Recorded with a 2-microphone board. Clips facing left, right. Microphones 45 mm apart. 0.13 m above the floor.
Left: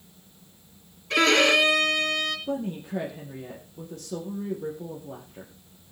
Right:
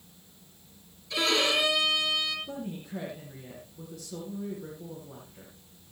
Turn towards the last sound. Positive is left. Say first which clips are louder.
# left 7 dB
turn(degrees=60)  # may be behind; listen again after turning